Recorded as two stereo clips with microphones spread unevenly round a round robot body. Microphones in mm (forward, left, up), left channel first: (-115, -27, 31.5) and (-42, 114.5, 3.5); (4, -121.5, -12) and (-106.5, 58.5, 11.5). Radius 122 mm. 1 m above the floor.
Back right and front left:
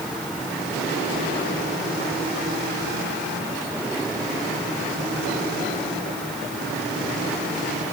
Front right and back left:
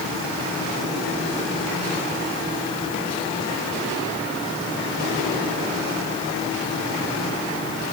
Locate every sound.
Only background noise.